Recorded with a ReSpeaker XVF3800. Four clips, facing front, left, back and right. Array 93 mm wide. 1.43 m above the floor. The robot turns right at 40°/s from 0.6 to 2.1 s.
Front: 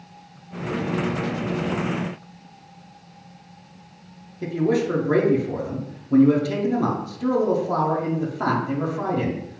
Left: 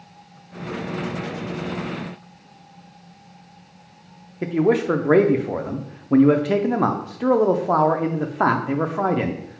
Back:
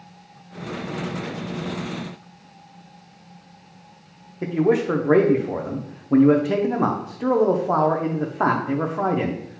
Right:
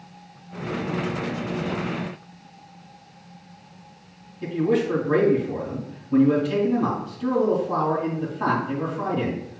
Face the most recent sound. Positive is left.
turn(degrees=120)